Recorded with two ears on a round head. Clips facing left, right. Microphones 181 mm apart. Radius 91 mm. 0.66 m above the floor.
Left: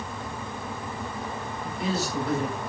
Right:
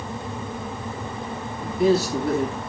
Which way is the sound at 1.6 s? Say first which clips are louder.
Right 11 dB; 45° right (ahead or behind).